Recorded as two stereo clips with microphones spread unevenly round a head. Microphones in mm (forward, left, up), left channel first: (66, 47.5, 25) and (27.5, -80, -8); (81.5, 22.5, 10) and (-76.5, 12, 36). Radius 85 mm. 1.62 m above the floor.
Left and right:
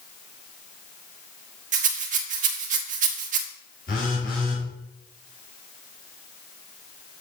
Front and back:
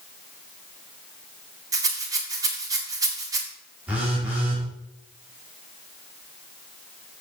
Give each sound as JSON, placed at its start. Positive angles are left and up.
{"t": 1.7, "sound": "a rattle", "azimuth_deg": -130, "distance_m": 1.1}
{"t": 3.9, "sound": "a phone buzzing", "azimuth_deg": 105, "distance_m": 3.0}